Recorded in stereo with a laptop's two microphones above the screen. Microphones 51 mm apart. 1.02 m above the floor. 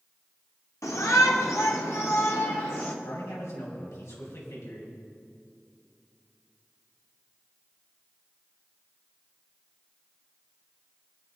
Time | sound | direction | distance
0.8 | a shout | 75° left (ahead or behind) | 2 m
3.0 | a man speaking | 75° left (ahead or behind) | 6.5 m